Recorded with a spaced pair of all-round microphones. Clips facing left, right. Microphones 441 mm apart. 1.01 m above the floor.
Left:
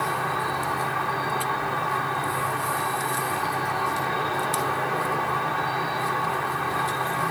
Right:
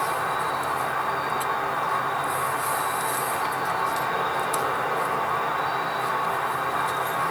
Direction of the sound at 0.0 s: 40° left (ahead or behind).